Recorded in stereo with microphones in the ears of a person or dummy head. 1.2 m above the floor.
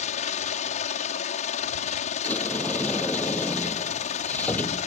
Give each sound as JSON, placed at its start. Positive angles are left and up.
{"t": 0.0, "sound": "a helicopter", "side_deg": 45}
{"t": 2.2, "sound": "a sliding door", "side_deg": 10}